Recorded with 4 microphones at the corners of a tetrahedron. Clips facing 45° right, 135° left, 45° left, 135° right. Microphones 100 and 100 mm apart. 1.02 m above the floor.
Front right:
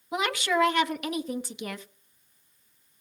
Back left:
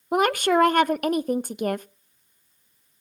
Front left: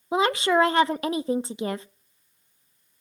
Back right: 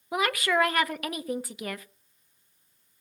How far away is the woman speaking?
About 0.6 m.